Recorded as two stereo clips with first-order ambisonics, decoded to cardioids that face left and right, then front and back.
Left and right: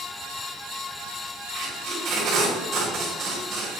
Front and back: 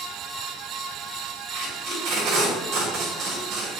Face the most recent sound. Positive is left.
turn(degrees=-145)